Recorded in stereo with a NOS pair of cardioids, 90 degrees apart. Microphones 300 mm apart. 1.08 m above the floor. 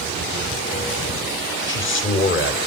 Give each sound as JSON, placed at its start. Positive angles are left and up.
{"t": 1.7, "sound": "a man speaking", "azimuth_deg": 40, "distance_m": 4.0}